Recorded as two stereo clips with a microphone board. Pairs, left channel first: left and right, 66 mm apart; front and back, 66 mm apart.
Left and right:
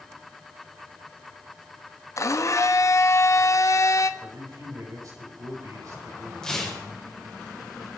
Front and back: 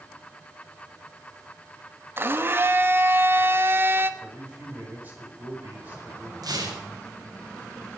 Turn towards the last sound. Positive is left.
turn(degrees=170)